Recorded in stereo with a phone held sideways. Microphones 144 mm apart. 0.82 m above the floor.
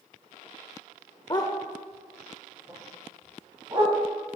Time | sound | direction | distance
1.3 | a dog barking | 30° left (ahead or behind) | 0.6 m